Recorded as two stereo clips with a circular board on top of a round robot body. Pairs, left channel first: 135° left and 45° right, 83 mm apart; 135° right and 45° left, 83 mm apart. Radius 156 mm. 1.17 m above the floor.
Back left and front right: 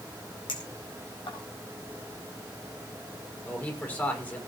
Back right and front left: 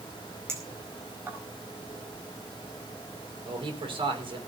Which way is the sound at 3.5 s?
65° left.